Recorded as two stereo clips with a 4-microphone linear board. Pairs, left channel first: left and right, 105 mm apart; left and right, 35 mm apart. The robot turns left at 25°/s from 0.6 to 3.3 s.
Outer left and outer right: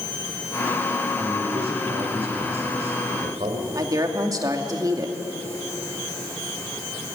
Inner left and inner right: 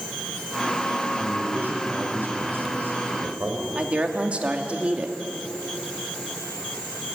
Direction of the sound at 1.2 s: 60° right.